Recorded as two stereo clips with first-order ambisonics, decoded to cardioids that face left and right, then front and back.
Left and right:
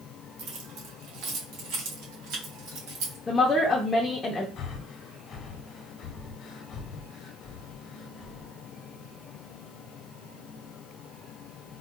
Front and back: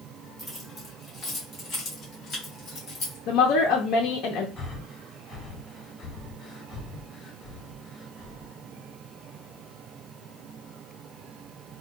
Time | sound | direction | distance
0.4 | keys jangling | 90° right | 1.2 m
3.3 | a woman speaking | 15° left | 0.6 m
4.6 | breathing | 60° left | 0.8 m